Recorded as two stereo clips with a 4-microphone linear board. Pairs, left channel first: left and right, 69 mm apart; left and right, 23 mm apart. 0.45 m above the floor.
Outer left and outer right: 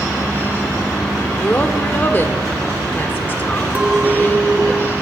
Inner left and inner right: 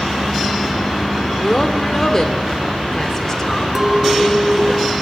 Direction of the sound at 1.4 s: 30° left (ahead or behind).